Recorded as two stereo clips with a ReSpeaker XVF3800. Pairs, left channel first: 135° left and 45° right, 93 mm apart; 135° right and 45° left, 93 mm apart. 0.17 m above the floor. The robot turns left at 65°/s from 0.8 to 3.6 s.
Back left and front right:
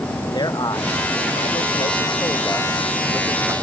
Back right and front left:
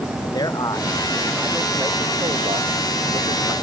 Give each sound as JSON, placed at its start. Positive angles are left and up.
{"t": 0.2, "sound": "a man speaking", "azimuth_deg": 180}